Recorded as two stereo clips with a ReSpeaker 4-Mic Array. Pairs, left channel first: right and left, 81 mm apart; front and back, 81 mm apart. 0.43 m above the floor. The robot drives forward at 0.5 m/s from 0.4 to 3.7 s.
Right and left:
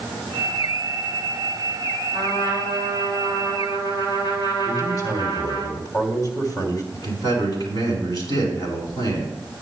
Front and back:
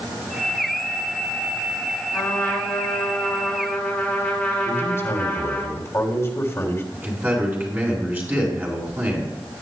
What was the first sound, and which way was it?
A trumpet, 70° right.